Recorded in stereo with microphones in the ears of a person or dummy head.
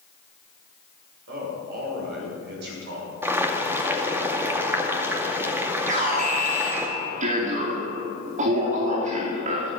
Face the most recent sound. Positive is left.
turn(degrees=-40)  # may be behind; listen again after turning